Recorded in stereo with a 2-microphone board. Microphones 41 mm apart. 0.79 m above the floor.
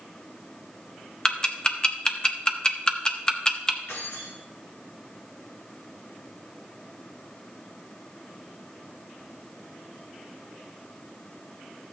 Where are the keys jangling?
80° left, 3 m.